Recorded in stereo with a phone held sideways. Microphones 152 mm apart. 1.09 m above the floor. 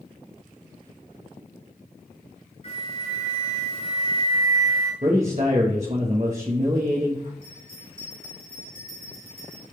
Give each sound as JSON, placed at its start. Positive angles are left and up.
{"t": 2.6, "sound": "a flute", "side_deg": 45, "distance_m": 4.0}
{"t": 5.0, "sound": "a man speaking", "side_deg": -45, "distance_m": 1.1}
{"t": 7.4, "sound": "a bell", "side_deg": 85, "distance_m": 3.5}